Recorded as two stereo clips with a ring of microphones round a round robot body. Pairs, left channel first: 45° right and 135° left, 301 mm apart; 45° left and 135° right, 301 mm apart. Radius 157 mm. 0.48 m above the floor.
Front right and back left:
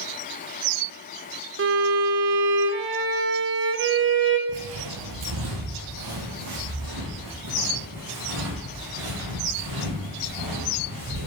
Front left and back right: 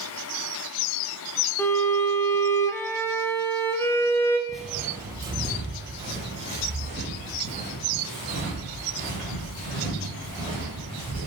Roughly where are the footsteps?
Behind left.